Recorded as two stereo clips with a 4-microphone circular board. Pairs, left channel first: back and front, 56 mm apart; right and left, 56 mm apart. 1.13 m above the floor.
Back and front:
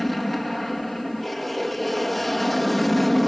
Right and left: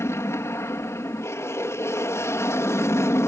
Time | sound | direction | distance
0.0 | an aircraft | 90° right | ?